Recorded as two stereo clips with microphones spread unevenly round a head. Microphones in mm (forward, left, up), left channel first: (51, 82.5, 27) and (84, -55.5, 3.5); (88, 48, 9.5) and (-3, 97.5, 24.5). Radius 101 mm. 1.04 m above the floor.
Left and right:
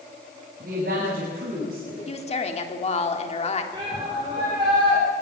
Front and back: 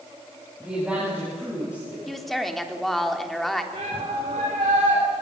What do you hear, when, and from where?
0.6 s a woman speaking: 120° right, 7 m
2.1 s a woman speaking: 60° left, 3.5 m
3.7 s a shout: 145° right, 4.5 m